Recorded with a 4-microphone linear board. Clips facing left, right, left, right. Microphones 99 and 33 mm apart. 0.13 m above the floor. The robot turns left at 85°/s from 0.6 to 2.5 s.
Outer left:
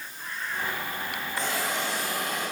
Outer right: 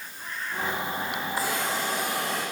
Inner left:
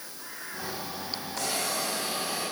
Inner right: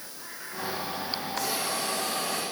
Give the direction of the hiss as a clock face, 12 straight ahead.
12 o'clock.